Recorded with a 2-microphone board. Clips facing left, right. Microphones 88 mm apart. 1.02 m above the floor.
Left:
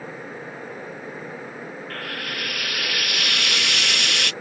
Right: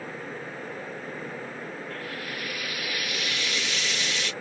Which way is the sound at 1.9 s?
65° left (ahead or behind).